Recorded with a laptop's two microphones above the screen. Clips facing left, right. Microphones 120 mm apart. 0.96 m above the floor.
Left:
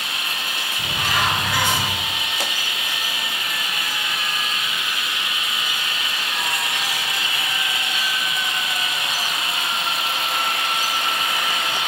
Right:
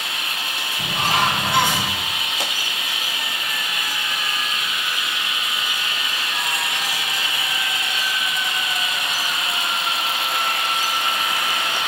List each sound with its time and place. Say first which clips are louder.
0.8 s a bird: right 3 dB; 25° right (ahead or behind), 7.5 m